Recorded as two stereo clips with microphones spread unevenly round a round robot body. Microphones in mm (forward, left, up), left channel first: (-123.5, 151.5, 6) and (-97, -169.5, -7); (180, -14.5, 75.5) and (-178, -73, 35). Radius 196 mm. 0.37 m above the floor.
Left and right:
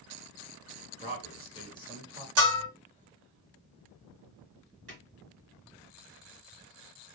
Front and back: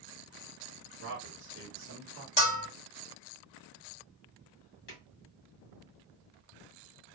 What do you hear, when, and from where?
1.0 s a man speaking: 165° left, 1.2 m
2.4 s a bell: 65° right, 1.7 m
4.9 s a drawer: 25° right, 1.4 m